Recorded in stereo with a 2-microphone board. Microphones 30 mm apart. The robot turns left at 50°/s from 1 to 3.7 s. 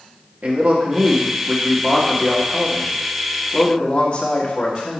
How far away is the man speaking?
About 1.8 m.